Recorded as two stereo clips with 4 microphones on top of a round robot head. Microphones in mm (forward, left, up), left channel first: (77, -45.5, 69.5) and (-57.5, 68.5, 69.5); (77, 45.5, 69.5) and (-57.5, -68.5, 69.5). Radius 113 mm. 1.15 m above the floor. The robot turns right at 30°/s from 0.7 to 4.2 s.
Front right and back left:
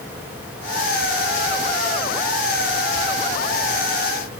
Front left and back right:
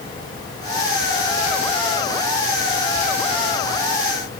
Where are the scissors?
No scissors in this recording.